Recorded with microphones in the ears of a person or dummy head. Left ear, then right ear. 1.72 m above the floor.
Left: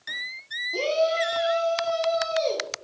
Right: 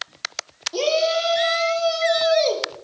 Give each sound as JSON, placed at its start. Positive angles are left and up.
{"t": 0.7, "sound": "a shout", "side_deg": -20, "distance_m": 2.0}